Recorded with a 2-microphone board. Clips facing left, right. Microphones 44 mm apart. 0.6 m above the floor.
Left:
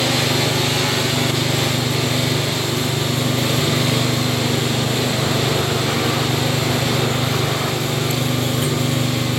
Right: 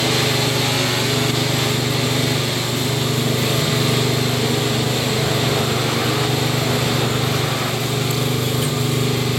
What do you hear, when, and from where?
0.0 s an engine running: 45° left (ahead or behind), 9.5 m